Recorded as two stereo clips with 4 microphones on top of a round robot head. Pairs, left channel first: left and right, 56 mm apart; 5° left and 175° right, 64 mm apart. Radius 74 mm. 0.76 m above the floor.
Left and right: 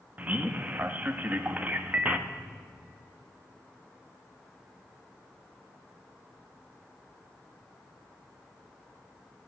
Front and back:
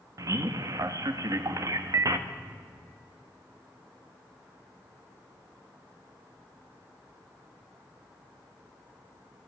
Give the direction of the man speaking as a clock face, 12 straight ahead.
5 o'clock.